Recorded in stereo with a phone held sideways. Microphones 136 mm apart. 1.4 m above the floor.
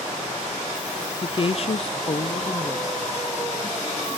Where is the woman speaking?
30° left (ahead or behind), 0.6 m; by 4.2 s 20° left (ahead or behind), 2 m.